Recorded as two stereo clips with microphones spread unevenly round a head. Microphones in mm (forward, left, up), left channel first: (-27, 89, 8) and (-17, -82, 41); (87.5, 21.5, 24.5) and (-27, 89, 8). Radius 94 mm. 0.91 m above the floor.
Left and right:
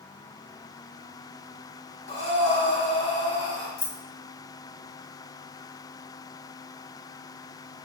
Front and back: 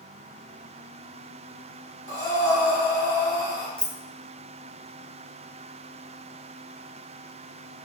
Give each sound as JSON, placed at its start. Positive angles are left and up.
{"t": 2.1, "sound": "breathing", "azimuth_deg": 25, "distance_m": 1.6}
{"t": 3.8, "sound": "keys jangling", "azimuth_deg": 55, "distance_m": 0.5}